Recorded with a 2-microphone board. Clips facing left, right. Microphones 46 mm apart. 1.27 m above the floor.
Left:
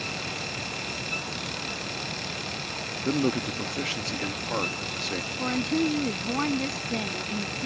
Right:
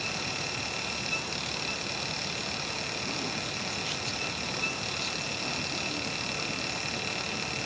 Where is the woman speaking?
65° left (ahead or behind).